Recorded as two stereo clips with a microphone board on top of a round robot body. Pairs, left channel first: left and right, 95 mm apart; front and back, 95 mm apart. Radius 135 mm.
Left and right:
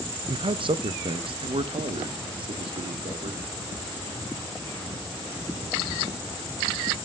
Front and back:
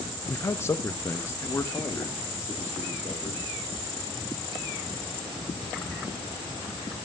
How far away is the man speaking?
About 0.6 m.